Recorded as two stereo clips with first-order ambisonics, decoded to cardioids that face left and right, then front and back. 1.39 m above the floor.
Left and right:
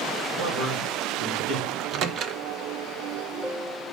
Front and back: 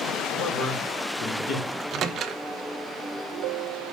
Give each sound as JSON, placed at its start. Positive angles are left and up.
{"t": 0.3, "sound": "a man speaking", "azimuth_deg": -40, "distance_m": 3.0}
{"t": 1.7, "sound": "a microwave", "azimuth_deg": -130, "distance_m": 0.7}